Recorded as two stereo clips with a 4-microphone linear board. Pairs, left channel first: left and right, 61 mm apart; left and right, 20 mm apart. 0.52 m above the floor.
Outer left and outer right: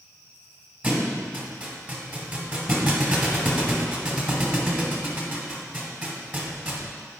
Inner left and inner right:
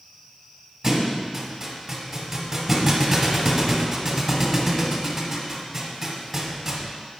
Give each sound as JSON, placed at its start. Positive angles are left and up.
{"t": 0.8, "sound": "a thud", "side_deg": -30, "distance_m": 1.2}